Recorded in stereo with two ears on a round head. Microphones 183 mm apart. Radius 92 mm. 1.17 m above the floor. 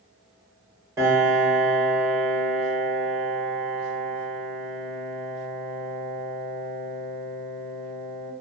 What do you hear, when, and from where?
1.0 s a piano: 15° right (ahead or behind), 0.7 m